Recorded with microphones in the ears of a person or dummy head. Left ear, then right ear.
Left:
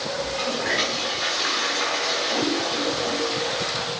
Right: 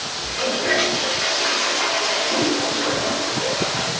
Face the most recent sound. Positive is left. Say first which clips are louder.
# right 5 dB
turn(degrees=5)  # may be behind; listen again after turning